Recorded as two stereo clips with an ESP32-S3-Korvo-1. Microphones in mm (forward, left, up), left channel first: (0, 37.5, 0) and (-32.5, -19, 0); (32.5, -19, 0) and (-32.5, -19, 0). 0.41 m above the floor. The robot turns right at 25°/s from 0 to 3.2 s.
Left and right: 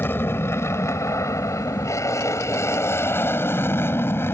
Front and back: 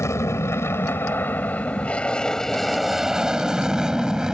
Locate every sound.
0.0 s an aircraft: 15° left; by 4.3 s 100° left